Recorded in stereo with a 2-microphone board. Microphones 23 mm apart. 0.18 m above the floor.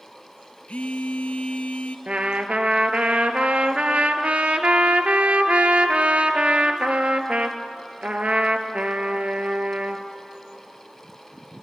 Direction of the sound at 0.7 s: 70° left (ahead or behind).